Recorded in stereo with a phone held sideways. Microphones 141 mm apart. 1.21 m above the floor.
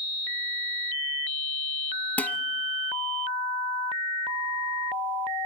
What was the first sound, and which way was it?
Dishes clattering, 10° left (ahead or behind).